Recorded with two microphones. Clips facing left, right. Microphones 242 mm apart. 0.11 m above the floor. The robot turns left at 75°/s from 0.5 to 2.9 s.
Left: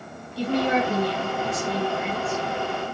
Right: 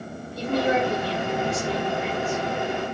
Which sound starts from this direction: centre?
A woman speaking, at 0.4 s.